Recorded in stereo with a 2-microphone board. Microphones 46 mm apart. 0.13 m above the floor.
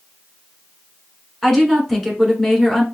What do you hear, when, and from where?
1.4 s a woman speaking: centre (ahead or behind), 1.2 m